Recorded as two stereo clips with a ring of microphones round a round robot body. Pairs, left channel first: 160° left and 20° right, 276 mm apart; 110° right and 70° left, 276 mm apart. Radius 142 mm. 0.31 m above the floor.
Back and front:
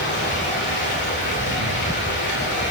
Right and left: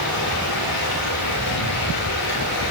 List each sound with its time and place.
0.0 s running water: 150° right, 9.5 m